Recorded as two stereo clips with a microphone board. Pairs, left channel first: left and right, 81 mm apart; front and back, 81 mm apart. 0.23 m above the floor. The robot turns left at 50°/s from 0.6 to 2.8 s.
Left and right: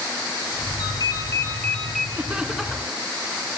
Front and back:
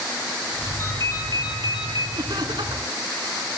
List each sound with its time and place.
0.8 s a ringtone: 60° left, 2.5 m; by 2.1 s straight ahead, 2.5 m
2.2 s laughter: 155° right, 3 m; by 3.0 s 170° left, 3 m